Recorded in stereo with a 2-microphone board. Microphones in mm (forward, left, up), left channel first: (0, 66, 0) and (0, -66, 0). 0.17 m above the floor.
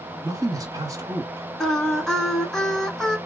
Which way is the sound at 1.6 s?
5° left (ahead or behind).